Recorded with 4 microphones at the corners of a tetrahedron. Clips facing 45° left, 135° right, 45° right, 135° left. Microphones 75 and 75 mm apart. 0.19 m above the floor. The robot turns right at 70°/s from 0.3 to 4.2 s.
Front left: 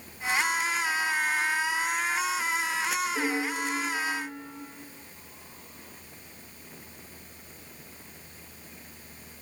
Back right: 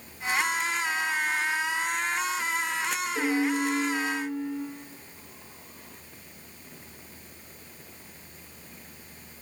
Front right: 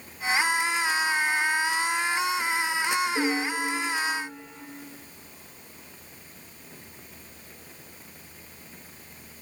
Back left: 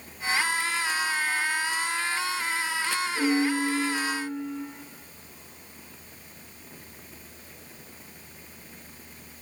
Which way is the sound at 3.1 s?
20° right.